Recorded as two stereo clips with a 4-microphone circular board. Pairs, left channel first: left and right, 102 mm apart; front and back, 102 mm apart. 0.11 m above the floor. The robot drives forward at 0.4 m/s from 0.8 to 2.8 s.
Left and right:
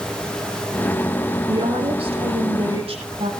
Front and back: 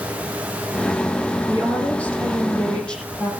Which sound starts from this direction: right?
A woman speaking, at 1.5 s.